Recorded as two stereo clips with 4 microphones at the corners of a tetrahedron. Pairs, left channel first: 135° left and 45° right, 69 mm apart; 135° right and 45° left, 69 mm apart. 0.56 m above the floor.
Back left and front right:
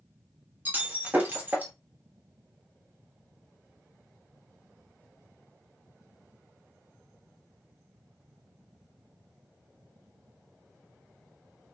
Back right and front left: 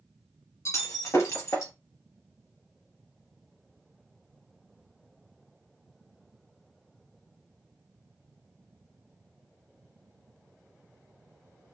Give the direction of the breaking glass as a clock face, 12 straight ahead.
3 o'clock.